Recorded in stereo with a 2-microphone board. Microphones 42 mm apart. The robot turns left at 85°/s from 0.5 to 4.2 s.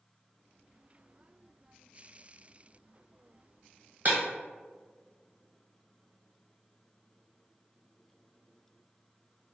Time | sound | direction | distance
4.0 | breaking glass | 40° right (ahead or behind) | 0.8 m